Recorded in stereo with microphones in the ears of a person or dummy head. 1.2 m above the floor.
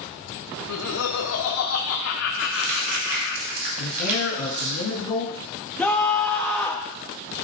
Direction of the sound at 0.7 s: 75° left (ahead or behind).